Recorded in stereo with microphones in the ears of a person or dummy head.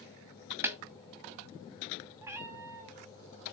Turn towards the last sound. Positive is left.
turn(degrees=-10)  # may be behind; listen again after turning